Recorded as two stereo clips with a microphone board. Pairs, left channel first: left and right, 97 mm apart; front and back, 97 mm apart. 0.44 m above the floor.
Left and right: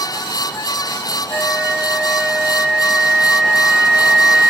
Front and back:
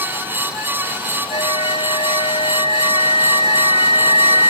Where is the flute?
5° right.